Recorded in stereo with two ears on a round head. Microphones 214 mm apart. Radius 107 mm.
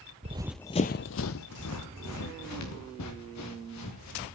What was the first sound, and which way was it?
Running footsteps, 30° right (ahead or behind).